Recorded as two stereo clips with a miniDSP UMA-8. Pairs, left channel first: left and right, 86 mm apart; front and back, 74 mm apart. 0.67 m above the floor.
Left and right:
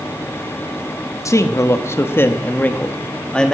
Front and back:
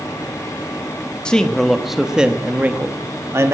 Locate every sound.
1.2 s a man speaking: 70° left, 1.3 m; by 3.5 s 165° left, 1.4 m